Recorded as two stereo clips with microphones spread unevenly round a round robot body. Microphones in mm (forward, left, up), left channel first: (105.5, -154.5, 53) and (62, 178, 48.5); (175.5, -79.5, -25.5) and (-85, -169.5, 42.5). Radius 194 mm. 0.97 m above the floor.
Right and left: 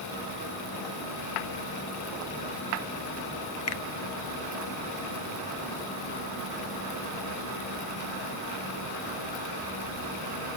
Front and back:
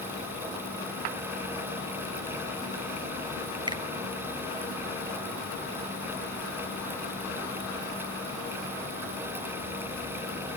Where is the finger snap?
75° right, 0.7 m.